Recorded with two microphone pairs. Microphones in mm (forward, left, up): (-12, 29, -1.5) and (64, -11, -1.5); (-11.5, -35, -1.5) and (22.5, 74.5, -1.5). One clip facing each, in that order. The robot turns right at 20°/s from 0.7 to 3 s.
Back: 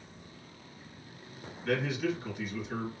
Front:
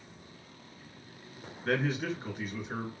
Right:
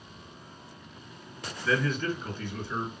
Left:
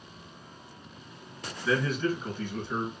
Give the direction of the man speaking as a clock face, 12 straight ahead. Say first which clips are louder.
Even, left 1 dB; 12 o'clock.